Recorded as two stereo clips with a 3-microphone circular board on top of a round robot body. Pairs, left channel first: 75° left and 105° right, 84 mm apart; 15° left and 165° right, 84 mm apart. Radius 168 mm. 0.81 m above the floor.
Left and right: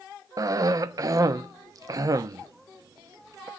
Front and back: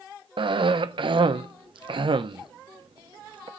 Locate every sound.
0.4 s a cough: 155° right, 1.1 m